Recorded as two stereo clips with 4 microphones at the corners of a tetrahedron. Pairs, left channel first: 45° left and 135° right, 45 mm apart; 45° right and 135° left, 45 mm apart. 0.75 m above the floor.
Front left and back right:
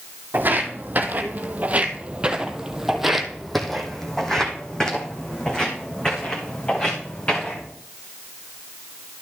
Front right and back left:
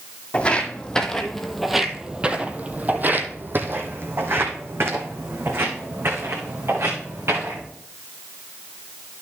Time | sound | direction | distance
0.3 | footsteps | 105° right | 1.2 m